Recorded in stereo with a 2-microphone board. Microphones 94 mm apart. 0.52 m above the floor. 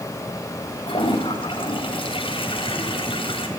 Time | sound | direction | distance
0.9 | a toilet flushing | 70° left (ahead or behind) | 3.5 m